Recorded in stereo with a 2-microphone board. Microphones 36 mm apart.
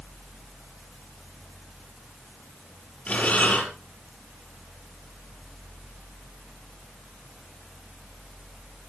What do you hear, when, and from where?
3.1 s breathing: 40° left (ahead or behind), 5.5 m